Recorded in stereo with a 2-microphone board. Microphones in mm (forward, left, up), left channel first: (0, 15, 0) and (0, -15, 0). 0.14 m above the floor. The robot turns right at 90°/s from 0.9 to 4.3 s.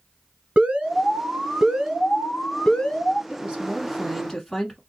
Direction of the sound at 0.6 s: 105° right.